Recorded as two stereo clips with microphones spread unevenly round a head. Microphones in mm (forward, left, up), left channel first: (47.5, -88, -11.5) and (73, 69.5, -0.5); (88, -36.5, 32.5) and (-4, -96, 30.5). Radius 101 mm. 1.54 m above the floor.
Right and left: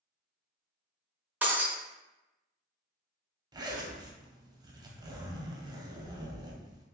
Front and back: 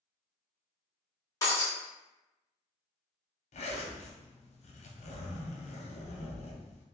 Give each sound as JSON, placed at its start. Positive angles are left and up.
{"t": 1.4, "sound": "breaking glass", "azimuth_deg": 20, "distance_m": 1.1}
{"t": 3.5, "sound": "a zipper", "azimuth_deg": 15, "distance_m": 0.8}